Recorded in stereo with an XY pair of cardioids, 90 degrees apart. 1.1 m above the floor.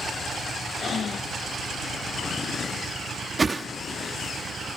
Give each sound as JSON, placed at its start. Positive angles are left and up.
{"t": 0.8, "sound": "breathing", "azimuth_deg": 55}
{"t": 3.4, "sound": "a whoosh", "azimuth_deg": -30}